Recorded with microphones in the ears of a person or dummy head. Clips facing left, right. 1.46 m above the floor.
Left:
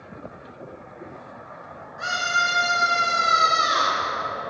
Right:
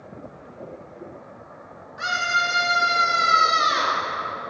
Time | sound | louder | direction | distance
2.0 | a scream | right 1 dB | 40° right (ahead or behind) | 4 m